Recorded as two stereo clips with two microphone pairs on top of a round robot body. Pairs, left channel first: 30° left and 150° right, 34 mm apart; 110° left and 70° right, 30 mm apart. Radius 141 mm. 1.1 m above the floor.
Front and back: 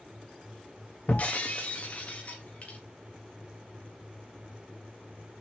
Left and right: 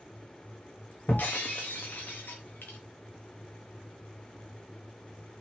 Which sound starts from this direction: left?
Breaking glass, at 1.1 s.